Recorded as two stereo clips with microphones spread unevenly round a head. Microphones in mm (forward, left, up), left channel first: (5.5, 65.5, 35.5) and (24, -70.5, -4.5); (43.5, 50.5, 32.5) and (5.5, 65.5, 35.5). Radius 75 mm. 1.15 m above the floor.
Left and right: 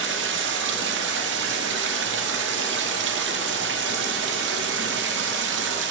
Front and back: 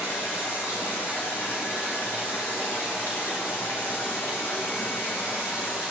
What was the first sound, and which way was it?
Running water, 95° right.